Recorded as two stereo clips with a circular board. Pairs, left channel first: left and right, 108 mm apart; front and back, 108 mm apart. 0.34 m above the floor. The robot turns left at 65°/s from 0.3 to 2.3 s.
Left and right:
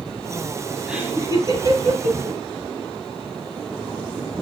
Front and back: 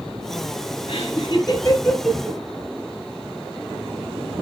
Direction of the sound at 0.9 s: 10° right.